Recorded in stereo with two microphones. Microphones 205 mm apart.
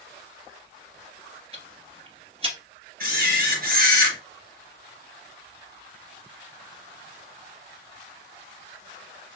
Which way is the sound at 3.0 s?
50° right (ahead or behind).